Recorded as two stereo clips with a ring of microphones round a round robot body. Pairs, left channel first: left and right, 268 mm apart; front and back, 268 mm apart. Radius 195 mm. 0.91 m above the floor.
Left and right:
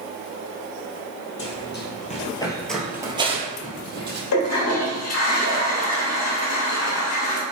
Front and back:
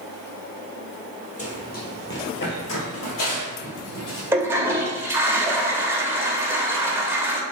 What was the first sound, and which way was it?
Running footsteps, 60° left.